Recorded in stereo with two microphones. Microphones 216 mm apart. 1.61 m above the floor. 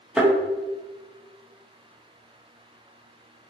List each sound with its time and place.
0.2 s a thud: 5° right (ahead or behind), 0.9 m